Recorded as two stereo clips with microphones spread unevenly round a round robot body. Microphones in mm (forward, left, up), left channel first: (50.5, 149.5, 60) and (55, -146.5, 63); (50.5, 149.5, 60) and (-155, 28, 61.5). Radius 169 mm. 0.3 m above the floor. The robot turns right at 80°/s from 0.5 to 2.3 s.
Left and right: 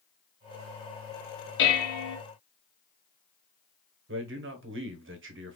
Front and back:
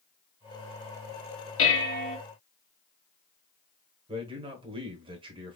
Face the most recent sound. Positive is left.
turn(degrees=-90)